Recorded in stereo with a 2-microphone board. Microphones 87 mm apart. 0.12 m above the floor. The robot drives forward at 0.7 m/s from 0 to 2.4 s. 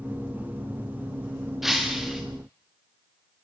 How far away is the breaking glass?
About 3 m.